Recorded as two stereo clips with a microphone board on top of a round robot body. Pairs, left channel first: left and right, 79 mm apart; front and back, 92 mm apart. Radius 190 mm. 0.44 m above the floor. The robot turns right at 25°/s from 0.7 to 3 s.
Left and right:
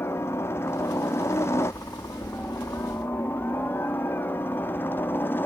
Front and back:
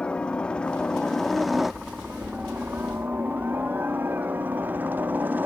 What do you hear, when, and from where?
0.0 s a helicopter: 70° left; by 5.5 s 130° left